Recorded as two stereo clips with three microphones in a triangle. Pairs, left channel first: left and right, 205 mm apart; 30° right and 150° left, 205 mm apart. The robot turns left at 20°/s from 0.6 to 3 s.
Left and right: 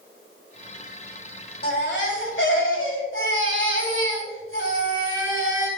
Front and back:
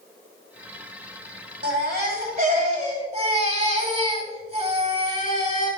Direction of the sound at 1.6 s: 120° left.